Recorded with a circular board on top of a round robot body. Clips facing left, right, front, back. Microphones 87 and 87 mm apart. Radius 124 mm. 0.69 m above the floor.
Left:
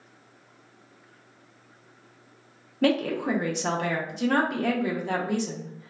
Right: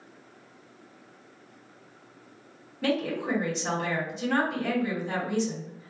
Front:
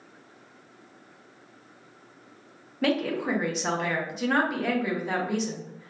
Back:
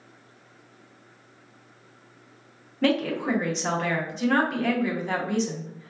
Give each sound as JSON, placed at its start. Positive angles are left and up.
{"t": 2.8, "sound": "a woman speaking", "azimuth_deg": 85, "distance_m": 0.8}